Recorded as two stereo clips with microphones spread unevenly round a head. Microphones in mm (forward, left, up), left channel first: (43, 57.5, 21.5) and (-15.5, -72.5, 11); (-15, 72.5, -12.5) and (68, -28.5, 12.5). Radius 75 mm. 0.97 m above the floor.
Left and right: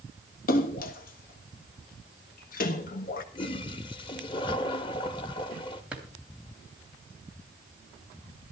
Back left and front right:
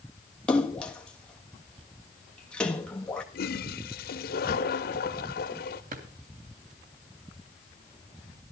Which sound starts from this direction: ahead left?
A splash, at 0.5 s.